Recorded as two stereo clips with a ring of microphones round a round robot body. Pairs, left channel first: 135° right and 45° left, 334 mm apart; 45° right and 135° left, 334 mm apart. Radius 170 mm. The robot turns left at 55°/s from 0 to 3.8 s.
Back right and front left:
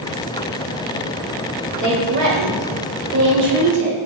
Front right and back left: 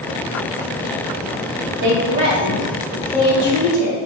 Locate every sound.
1.8 s a woman speaking: 90° left, 1.7 m; by 4.0 s 20° right, 1.7 m